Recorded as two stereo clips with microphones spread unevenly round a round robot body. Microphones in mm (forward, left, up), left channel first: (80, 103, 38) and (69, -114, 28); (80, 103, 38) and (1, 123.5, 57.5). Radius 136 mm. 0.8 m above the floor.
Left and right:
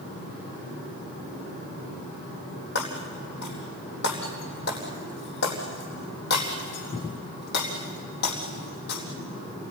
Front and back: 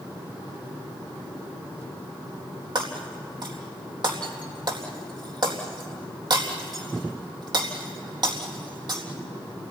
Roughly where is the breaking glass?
Behind left.